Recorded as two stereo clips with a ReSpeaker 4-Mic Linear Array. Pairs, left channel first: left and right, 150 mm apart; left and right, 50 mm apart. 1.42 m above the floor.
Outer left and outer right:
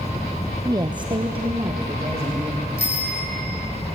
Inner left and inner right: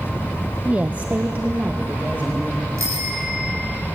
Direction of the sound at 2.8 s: 85° right.